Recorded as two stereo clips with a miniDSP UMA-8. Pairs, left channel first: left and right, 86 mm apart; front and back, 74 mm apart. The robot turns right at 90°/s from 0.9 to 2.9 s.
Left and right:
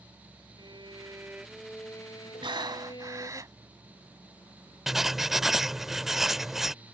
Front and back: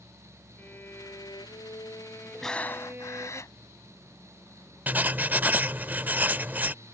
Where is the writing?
170° right.